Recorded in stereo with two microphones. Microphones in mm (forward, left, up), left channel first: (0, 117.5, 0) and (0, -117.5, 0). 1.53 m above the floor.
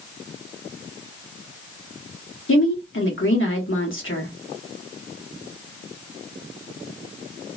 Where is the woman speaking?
60° left (ahead or behind), 1.2 m.